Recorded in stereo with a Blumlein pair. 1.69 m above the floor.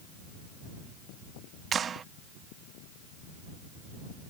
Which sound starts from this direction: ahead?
A clap, at 1.7 s.